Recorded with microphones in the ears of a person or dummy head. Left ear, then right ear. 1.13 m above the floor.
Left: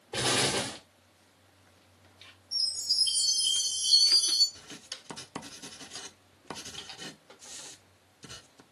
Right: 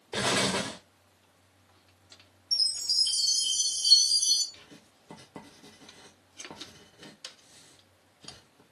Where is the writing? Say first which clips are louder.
Left 9 dB; 40° left (ahead or behind), 0.6 m.